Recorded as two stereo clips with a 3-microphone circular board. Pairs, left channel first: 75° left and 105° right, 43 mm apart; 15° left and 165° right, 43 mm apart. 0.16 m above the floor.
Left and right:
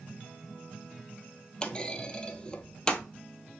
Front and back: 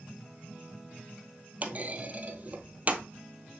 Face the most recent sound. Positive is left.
turn(degrees=145)